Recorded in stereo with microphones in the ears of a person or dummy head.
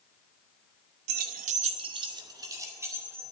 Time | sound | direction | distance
1.1 | keys jangling | 60° right (ahead or behind) | 0.9 m